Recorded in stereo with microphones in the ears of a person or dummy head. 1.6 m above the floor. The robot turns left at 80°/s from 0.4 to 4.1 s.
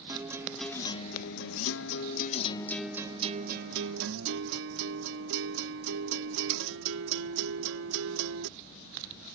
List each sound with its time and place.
0.1 s a guitar: 170° right; by 8.5 s 105° right